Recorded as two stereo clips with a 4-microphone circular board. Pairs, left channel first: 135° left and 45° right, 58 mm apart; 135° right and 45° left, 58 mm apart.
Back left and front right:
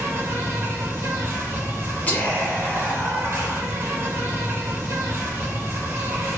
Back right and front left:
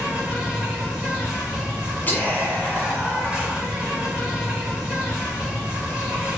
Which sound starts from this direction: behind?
Whispering, at 2.1 s.